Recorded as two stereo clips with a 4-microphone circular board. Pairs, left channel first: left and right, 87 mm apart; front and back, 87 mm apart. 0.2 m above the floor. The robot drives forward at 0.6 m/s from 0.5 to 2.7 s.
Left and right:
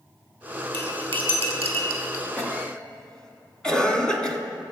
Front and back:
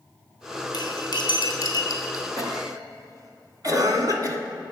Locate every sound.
0.7 s cutlery clinking: 30° left, 3 m; by 2.2 s 45° left, 2 m
2.4 s a cough: 165° left, 1.7 m; by 4.4 s 170° left, 1.8 m